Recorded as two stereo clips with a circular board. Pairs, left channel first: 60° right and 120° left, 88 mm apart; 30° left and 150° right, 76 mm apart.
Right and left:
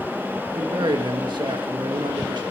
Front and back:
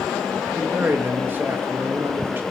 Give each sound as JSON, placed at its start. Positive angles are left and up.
{"t": 0.6, "sound": "a man speaking", "azimuth_deg": 150, "distance_m": 1.9}